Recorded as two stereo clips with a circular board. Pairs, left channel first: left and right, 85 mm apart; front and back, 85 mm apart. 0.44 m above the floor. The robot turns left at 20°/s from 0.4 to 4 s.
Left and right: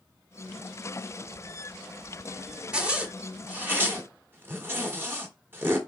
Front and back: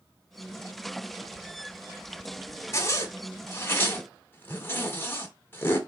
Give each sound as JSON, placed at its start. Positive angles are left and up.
{"t": 2.7, "sound": "a zipper", "azimuth_deg": -20, "distance_m": 1.2}